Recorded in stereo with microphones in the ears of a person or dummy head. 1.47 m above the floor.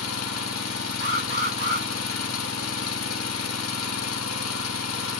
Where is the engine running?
80° left, 0.7 m.